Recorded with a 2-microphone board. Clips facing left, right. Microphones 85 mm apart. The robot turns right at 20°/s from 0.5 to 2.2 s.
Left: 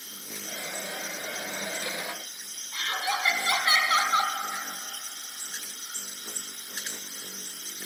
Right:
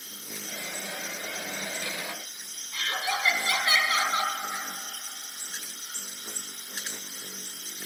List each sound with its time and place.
2.7 s laughter: 30° left (ahead or behind), 2 m